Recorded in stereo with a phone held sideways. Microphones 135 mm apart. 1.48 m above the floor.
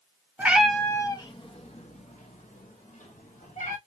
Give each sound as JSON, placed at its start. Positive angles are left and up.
{"t": 0.4, "sound": "a cat meowing", "side_deg": -15, "distance_m": 0.9}